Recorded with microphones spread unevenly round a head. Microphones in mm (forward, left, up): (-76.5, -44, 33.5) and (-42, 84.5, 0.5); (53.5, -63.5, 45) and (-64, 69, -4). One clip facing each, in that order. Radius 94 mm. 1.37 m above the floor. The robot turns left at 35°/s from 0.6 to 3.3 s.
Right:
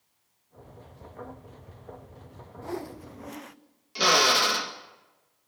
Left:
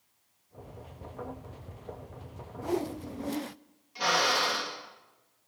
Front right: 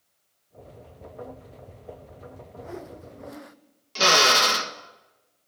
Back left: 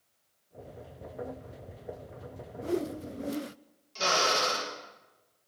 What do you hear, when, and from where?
2.6 s a whoosh: 135° left, 0.8 m; by 3.6 s 110° left, 0.8 m
4.0 s a drill: 70° right, 2 m